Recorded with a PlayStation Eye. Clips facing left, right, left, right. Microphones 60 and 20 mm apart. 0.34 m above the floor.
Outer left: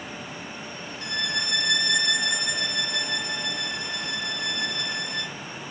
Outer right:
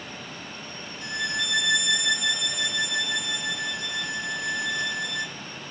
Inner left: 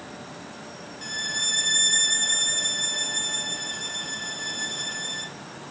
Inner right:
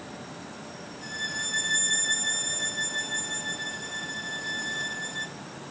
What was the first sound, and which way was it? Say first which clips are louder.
A violin: outer right 1 dB, inner left 5 dB; 55° left (ahead or behind).